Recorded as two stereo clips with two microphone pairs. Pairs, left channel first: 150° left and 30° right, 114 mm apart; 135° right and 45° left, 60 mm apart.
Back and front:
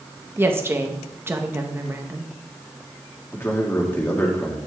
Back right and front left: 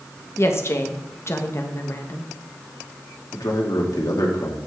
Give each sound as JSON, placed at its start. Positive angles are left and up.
{"t": 0.4, "sound": "a woman speaking", "azimuth_deg": -100, "distance_m": 1.2}
{"t": 3.3, "sound": "a man speaking", "azimuth_deg": -140, "distance_m": 2.0}